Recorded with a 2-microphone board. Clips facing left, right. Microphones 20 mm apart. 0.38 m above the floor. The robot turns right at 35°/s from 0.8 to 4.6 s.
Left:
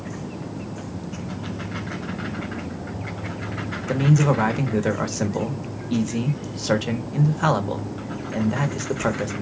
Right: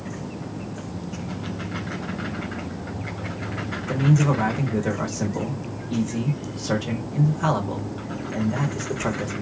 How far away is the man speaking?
About 0.9 m.